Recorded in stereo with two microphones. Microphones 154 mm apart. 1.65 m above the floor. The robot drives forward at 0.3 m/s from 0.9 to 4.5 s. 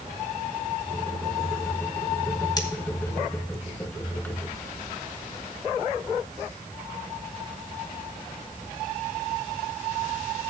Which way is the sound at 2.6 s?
25° left (ahead or behind).